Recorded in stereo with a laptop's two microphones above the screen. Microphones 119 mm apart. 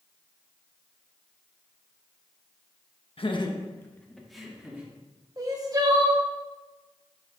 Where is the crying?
30° right (ahead or behind), 0.8 m.